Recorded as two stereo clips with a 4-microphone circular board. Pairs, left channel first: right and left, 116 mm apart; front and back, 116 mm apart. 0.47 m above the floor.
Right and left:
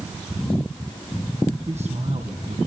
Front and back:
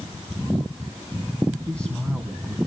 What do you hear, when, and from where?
1.7 s a man speaking: 80° left, 3.5 m